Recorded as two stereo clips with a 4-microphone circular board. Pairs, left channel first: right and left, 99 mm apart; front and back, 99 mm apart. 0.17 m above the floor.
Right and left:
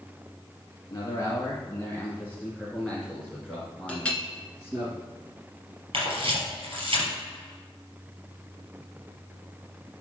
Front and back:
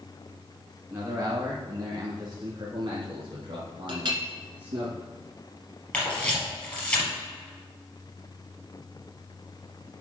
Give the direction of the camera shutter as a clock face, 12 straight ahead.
9 o'clock.